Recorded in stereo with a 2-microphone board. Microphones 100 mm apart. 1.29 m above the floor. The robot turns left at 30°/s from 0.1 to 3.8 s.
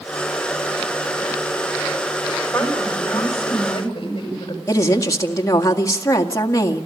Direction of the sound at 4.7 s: 30° left (ahead or behind).